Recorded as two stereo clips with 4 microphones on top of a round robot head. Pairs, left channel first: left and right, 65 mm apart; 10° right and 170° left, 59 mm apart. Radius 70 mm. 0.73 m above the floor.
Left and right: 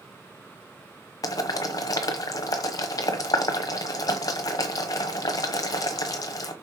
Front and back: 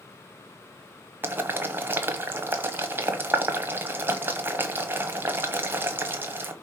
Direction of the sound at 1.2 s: 115° left.